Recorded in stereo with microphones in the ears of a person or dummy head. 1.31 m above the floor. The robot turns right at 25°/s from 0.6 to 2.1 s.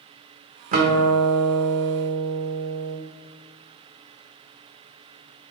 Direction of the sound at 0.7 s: 140° right.